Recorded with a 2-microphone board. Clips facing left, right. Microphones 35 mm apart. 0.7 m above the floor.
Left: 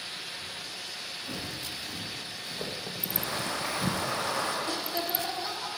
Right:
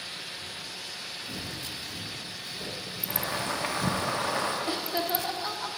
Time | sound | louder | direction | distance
1.3 | footsteps | left 1 dB | 55° left (ahead or behind) | 3.5 m
3.1 | boiling | right 2 dB | 40° right (ahead or behind) | 1.5 m
4.7 | laughter | right 2 dB | 25° right (ahead or behind) | 0.7 m